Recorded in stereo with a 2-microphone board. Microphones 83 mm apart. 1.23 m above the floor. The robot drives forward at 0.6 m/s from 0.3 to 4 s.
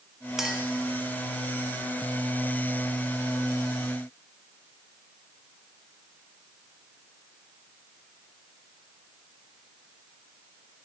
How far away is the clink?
About 0.7 m.